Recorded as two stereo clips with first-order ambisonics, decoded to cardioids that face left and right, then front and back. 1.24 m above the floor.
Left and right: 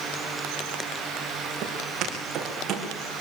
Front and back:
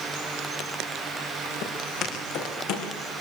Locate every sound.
1.6 s footsteps: 35° right, 6 m; by 2.9 s 30° right, 6 m